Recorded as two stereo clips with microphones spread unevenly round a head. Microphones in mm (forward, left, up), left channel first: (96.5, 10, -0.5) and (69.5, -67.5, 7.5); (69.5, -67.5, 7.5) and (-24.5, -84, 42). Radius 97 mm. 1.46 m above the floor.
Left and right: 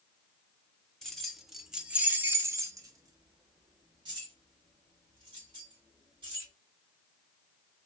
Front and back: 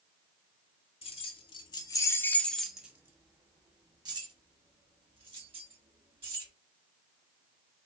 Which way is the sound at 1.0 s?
15° right.